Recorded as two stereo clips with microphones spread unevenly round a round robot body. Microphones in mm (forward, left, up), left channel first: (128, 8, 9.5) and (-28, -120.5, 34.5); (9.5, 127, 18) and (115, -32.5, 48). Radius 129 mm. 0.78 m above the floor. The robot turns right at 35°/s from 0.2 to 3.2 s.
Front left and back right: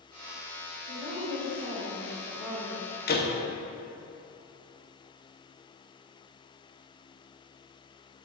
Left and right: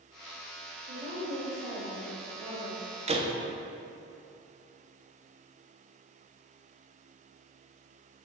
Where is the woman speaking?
110° right, 2.5 m; by 2.8 s 40° right, 2.5 m.